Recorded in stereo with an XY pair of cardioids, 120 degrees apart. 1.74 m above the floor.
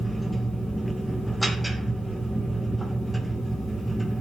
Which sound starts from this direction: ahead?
A machine running, at 0.0 s.